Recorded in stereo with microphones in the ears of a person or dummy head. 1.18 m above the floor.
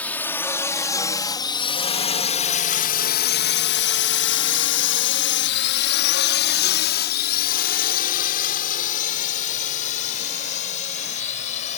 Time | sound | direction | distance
0.0 | a drone | 10° left (ahead or behind) | ?